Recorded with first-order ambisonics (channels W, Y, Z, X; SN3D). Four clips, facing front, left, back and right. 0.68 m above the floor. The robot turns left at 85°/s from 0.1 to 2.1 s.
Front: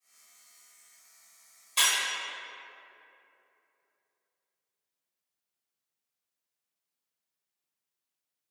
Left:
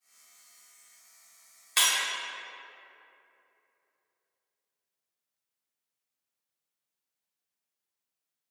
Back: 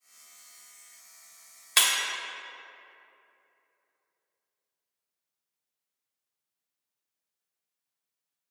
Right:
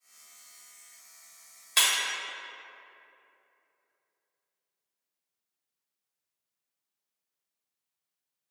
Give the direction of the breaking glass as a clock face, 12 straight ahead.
6 o'clock.